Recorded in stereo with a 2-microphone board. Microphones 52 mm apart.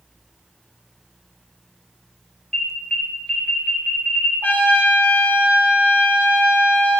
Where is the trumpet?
30° left (ahead or behind), 2.5 m.